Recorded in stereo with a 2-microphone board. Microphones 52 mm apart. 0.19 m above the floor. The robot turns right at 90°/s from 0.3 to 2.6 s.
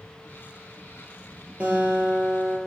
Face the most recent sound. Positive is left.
turn(degrees=-65)